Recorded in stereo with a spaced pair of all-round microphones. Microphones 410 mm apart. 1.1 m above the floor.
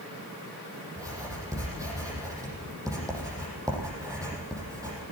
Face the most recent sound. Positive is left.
turn(degrees=-10)  # may be behind; listen again after turning